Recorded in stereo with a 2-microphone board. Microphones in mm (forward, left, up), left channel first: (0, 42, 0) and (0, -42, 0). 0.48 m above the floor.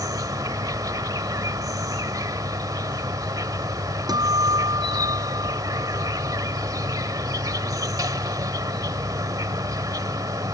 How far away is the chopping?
No chopping in this recording.